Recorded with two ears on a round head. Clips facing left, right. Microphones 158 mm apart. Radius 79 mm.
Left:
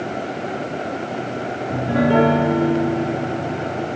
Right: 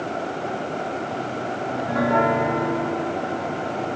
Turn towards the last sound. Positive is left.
turn(degrees=35)  # may be behind; listen again after turning